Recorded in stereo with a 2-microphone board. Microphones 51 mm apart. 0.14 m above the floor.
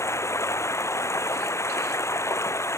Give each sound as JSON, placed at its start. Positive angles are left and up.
{"t": 0.0, "sound": "running water", "side_deg": 65}